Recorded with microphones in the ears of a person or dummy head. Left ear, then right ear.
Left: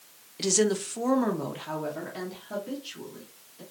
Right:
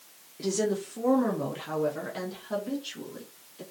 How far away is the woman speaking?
About 0.5 m.